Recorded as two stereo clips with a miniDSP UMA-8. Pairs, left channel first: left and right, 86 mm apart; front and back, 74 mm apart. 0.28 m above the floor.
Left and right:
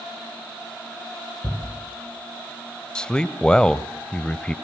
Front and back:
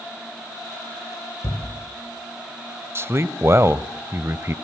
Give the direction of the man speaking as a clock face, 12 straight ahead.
7 o'clock.